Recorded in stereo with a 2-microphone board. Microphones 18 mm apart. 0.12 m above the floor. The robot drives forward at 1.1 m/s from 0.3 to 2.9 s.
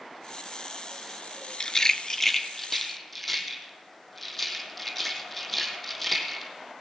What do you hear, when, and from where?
1.6 s a rattle: 45° left (ahead or behind), 0.5 m; by 6.5 s 15° left (ahead or behind), 1.6 m